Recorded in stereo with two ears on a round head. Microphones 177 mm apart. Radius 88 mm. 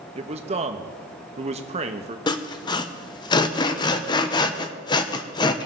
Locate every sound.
0.1 s a man speaking: 35° right (ahead or behind), 1.0 m
2.3 s sawing: 20° left (ahead or behind), 0.7 m